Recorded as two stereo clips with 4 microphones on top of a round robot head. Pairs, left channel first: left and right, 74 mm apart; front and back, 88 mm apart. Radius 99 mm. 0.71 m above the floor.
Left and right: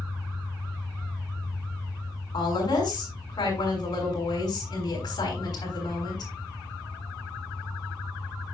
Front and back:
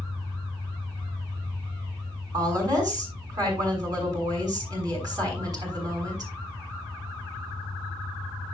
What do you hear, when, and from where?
0.0 s an engine running: 140° left, 6.5 m
2.3 s a woman speaking: 135° left, 6 m